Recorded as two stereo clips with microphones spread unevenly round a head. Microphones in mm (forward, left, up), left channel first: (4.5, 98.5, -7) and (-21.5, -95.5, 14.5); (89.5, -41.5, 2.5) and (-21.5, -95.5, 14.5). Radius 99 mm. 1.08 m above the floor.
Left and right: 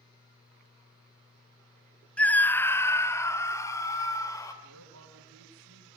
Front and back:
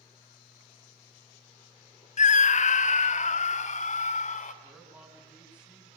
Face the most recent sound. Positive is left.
turn(degrees=-75)